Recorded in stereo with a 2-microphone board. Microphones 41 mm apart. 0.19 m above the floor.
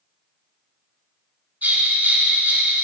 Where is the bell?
40° right (ahead or behind), 1.5 m.